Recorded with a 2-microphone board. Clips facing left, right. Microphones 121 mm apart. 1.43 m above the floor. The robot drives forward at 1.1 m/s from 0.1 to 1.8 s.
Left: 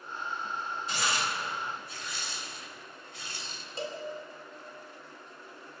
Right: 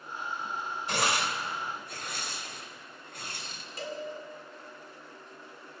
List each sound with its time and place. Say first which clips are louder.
0.9 s tearing paper: right 4 dB; 70° right (ahead or behind), 2.5 m; by 3.6 s 55° right (ahead or behind), 3 m
3.8 s a cowbell: even; 30° left (ahead or behind), 3 m